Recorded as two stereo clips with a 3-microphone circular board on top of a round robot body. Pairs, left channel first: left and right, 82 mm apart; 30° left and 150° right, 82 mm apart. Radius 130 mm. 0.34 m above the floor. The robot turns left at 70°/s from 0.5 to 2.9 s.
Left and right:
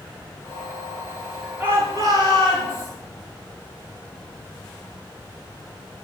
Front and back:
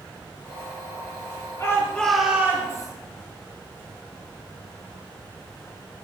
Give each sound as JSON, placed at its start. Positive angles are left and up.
{"t": 1.6, "sound": "a shout", "azimuth_deg": -20, "distance_m": 8.0}